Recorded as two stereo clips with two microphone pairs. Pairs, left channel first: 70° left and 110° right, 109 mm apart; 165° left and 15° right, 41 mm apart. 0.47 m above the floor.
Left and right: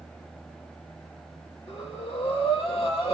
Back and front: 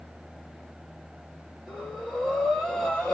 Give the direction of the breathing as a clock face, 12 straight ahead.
9 o'clock.